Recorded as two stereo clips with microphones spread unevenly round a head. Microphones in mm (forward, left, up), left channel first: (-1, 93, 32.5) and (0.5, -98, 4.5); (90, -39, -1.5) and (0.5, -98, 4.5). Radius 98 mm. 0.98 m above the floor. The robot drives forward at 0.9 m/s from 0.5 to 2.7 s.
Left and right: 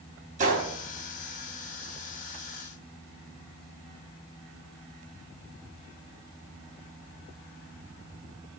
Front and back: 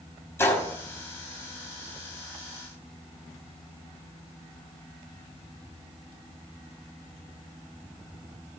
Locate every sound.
0.4 s a gunshot: 35° right, 3 m